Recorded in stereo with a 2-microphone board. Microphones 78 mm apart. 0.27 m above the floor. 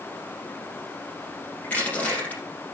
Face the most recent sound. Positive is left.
turn(degrees=20)  # may be behind; listen again after turning